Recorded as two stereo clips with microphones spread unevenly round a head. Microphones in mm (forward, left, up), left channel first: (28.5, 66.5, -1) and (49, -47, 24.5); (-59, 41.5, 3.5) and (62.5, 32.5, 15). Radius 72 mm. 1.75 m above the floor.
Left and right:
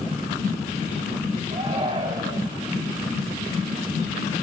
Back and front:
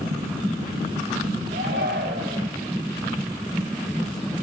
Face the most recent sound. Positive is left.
turn(degrees=-30)